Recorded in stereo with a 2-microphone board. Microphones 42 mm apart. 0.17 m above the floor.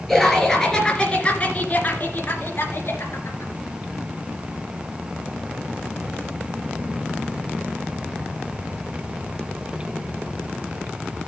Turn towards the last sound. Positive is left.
turn(degrees=65)  # may be behind; listen again after turning